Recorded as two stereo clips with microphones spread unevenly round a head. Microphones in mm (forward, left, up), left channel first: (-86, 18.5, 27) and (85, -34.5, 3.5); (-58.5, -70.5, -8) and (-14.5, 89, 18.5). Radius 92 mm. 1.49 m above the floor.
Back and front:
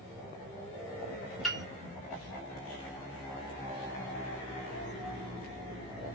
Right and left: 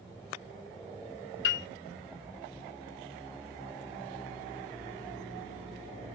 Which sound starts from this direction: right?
A piano, at 1.4 s.